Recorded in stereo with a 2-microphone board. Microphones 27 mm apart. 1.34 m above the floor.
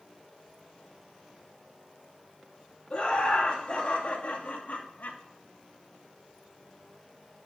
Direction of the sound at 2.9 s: 45° left (ahead or behind).